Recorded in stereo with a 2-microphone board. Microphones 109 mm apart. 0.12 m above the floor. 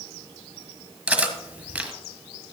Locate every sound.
1.1 s cutlery clinking: 10° right (ahead or behind), 1.3 m